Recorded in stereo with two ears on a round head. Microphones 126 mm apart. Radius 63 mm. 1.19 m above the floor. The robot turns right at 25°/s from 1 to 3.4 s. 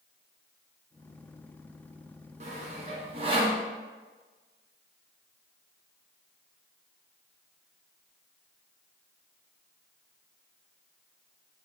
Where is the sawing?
50° right (ahead or behind), 0.8 m; by 3.6 s 35° right (ahead or behind), 0.8 m.